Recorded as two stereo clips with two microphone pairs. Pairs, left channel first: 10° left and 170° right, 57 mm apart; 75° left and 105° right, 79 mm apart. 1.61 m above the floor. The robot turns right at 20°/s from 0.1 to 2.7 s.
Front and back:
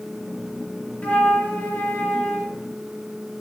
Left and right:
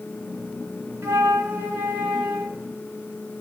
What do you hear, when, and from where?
1.0 s a flute: 50° right, 1.8 m; by 2.6 s 20° right, 1.8 m